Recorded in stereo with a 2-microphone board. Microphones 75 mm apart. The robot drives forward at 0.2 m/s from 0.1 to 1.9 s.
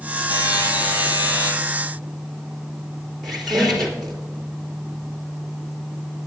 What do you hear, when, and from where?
0.3 s a buzzer: 85° left, 2.5 m; by 1.5 s 80° left, 2.5 m
3.2 s a squeak: 10° left (ahead or behind), 3.5 m